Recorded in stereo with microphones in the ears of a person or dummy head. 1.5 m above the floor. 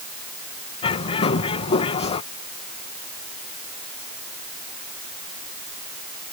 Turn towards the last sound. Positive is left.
turn(degrees=35)  # may be behind; listen again after turning